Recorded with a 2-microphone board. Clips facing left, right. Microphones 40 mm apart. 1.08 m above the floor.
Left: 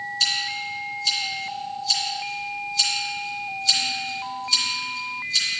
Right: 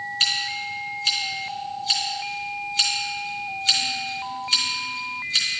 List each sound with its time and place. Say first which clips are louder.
0.2 s scissors: right 1 dB; 45° right (ahead or behind), 2 m